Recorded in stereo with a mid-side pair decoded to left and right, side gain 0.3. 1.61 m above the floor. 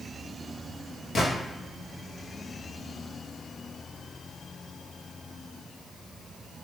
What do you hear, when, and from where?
1.1 s a gunshot: 70° left, 1.1 m